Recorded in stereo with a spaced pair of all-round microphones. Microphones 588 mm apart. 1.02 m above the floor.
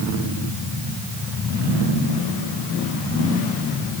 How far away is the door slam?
No door slam in this recording.